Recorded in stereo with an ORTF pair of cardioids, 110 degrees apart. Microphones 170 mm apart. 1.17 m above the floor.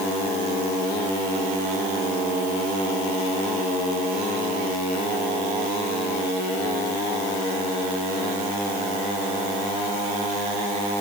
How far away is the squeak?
I don't hear a squeak.